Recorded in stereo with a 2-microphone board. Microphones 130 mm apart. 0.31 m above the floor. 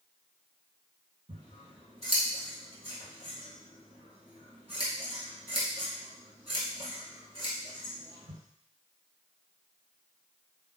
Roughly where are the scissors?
Right.